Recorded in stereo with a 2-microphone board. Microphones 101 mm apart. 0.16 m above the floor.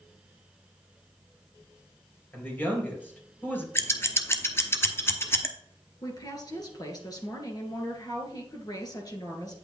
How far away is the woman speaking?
About 2 m.